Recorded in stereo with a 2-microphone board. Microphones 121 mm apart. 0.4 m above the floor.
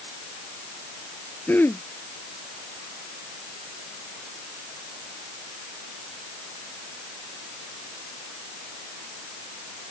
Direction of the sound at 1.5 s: 15° left (ahead or behind).